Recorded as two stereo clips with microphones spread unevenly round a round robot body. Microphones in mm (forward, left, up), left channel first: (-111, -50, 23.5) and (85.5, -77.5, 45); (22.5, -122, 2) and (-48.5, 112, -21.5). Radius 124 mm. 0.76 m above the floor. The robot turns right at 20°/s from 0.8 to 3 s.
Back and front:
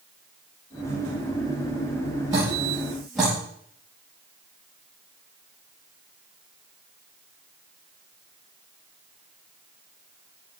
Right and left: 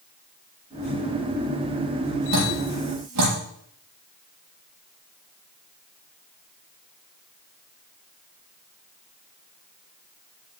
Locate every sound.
2.3 s dripping: 65° left, 6 m; by 3.4 s 80° left, 6 m